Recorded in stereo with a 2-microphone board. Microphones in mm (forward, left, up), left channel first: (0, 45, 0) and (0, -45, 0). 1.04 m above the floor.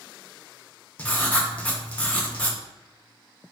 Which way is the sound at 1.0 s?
15° left (ahead or behind).